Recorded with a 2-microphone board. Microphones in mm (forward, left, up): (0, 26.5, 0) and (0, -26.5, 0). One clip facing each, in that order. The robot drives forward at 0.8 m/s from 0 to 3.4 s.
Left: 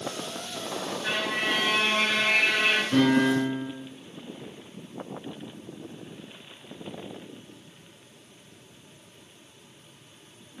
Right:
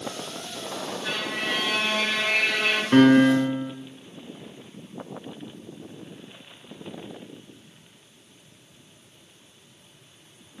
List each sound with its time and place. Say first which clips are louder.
1.0 s a violin: left 2 dB; 15° left (ahead or behind), 1.3 m; by 2.8 s 10° left (ahead or behind), 2.5 m
2.9 s a piano: right 8 dB; 60° right (ahead or behind), 2.0 m; by 3.7 s 55° right (ahead or behind), 2 m